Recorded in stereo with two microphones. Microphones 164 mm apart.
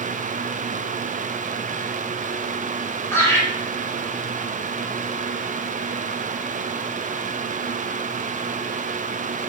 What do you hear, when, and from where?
3.1 s laughter: 15° left (ahead or behind), 1.9 m